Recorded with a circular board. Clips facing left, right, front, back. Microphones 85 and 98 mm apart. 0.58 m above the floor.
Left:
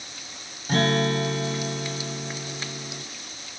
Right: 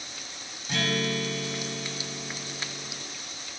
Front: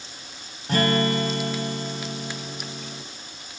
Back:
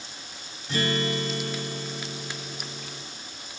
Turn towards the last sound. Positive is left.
turn(degrees=35)